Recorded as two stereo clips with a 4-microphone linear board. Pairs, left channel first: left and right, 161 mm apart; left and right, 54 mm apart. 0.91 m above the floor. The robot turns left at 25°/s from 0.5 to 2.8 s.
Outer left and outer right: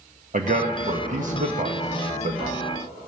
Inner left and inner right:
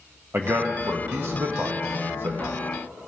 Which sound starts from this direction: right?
A man speaking, at 0.3 s.